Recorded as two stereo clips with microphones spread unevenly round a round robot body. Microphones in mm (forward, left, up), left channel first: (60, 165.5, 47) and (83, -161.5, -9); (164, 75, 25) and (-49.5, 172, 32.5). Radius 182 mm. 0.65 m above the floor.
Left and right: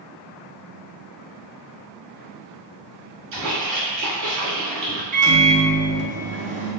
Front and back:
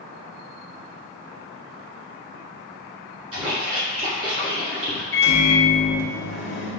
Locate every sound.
3.3 s a splash: 130° right, 1.8 m
5.1 s a microwave: 30° right, 1.1 m